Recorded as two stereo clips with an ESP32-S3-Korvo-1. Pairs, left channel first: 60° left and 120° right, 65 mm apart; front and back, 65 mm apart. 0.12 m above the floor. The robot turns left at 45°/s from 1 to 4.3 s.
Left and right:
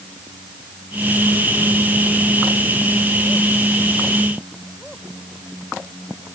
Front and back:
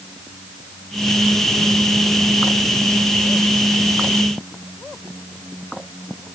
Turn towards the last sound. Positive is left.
No sound to turn to.